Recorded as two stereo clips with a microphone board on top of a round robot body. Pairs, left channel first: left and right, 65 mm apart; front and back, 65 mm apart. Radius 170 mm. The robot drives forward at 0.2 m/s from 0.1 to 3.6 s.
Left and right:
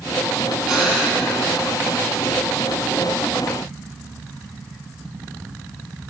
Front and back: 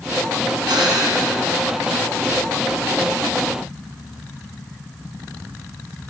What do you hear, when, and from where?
0.7 s breathing: 170° right, 6 m